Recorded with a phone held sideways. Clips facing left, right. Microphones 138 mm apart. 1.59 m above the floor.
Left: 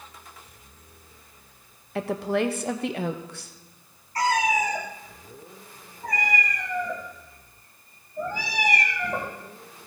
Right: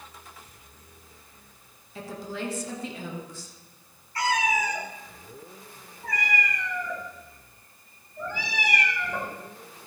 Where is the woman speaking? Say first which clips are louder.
Left 10 dB; 70° left (ahead or behind), 1.0 m.